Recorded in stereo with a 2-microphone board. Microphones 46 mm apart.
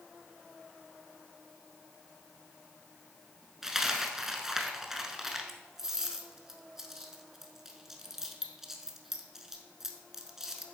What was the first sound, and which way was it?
A dropped coin, 10° right (ahead or behind).